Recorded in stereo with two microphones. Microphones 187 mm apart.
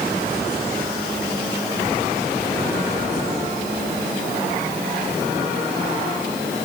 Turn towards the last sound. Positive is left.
No sound to turn to.